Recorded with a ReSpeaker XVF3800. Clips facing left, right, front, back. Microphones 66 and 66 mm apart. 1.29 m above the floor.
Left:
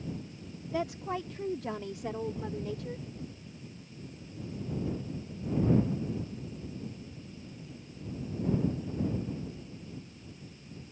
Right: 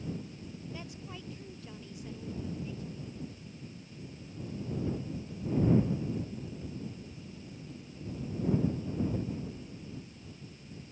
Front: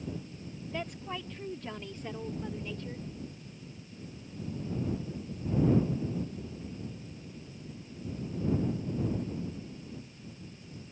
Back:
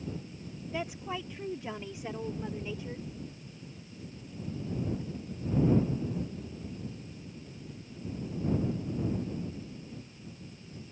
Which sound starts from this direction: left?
A woman speaking, at 0.7 s.